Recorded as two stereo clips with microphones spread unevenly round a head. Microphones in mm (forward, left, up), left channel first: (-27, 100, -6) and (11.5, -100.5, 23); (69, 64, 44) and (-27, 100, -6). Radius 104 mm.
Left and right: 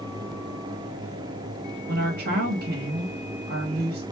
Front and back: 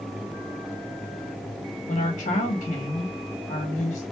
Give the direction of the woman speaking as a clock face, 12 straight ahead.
1 o'clock.